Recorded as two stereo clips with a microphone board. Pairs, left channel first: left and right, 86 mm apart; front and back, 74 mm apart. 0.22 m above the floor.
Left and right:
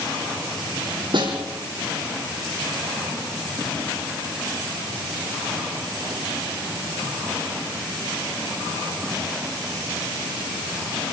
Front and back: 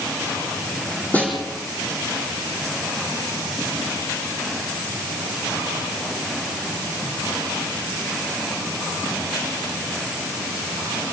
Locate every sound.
1.1 s a snare drum: 70° right, 7 m